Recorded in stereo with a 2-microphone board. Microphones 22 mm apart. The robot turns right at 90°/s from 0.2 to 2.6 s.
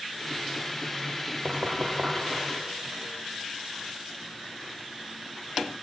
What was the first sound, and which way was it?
Knocking, 70° right (ahead or behind).